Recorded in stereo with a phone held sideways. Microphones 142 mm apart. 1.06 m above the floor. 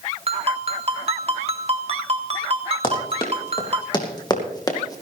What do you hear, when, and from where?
0.3 s a ringtone: 45° right (ahead or behind), 1.4 m
2.8 s running footsteps: 35° left (ahead or behind), 3.5 m; by 5.0 s 25° left (ahead or behind), 2 m